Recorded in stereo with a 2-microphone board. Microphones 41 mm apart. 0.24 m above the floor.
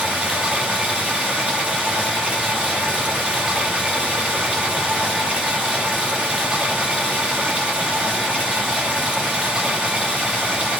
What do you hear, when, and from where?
0.0 s running water: 30° right (ahead or behind), 3.5 m